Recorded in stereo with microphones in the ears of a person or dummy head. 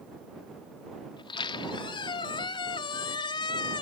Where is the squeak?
30° left (ahead or behind).